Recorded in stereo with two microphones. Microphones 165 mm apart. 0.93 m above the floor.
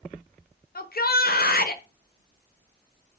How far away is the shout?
About 0.5 m.